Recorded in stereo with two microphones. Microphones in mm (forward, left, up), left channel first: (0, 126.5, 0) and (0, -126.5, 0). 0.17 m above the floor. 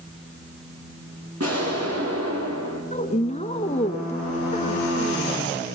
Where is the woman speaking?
25° left (ahead or behind), 1.7 m.